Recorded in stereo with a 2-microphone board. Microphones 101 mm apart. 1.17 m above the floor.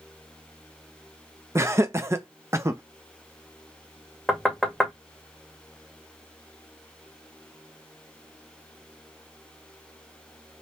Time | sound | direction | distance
1.6 | laughter | 25° right (ahead or behind) | 0.6 m
4.3 | knocking | centre (ahead or behind) | 1.0 m